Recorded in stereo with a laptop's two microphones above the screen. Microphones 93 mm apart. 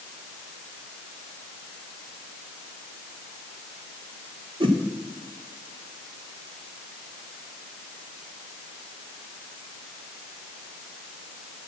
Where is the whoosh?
70° right (ahead or behind), 1.5 m.